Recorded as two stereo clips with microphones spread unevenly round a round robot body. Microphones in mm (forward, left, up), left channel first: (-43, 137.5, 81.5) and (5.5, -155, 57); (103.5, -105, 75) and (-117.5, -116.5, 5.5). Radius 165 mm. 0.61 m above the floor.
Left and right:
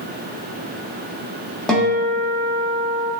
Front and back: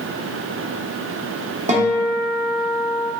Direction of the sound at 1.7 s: 170° right.